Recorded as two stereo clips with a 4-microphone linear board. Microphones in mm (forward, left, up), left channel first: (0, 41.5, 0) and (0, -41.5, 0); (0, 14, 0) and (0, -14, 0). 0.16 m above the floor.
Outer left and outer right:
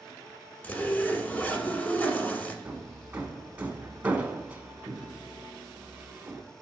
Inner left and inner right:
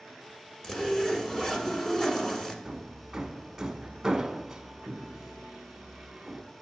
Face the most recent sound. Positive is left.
turn(degrees=-20)  # may be behind; listen again after turning